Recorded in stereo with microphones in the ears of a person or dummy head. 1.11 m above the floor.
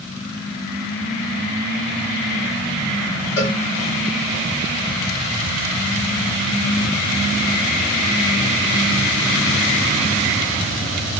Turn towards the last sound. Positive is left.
turn(degrees=30)  # may be behind; listen again after turning